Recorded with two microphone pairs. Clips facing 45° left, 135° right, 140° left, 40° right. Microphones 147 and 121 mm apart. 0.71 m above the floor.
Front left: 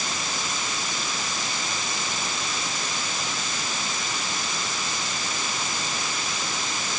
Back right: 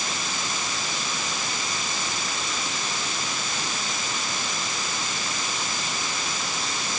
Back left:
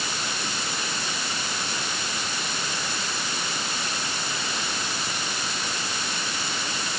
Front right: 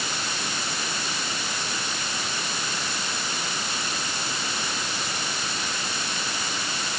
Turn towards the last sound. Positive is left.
No sound to turn to.